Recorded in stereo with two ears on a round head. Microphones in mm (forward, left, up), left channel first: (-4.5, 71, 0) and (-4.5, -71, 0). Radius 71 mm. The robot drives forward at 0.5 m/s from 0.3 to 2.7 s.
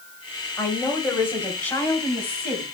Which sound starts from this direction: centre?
A woman speaking, at 0.6 s.